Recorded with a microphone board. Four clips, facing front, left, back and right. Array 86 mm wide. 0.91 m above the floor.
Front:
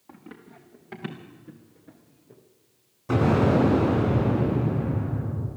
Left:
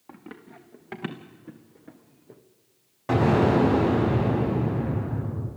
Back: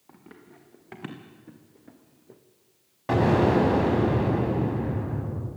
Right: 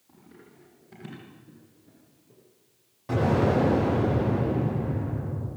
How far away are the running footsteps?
About 3.5 m.